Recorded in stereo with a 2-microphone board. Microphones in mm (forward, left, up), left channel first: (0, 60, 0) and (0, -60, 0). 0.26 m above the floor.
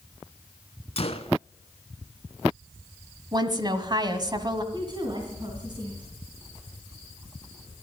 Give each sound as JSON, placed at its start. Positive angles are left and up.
{"t": 1.0, "sound": "a gunshot", "side_deg": 55, "distance_m": 0.9}
{"t": 3.3, "sound": "a woman speaking", "side_deg": -35, "distance_m": 1.5}
{"t": 4.7, "sound": "a woman speaking", "side_deg": -40, "distance_m": 2.5}